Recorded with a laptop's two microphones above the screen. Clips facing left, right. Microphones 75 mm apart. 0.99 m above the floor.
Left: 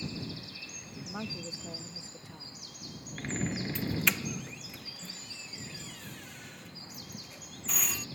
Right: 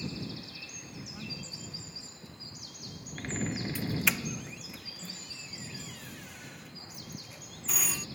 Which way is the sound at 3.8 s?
Centre (ahead or behind).